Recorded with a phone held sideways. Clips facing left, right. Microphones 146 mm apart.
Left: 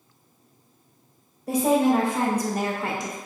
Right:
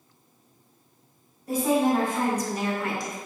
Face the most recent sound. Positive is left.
turn(degrees=15)  # may be behind; listen again after turning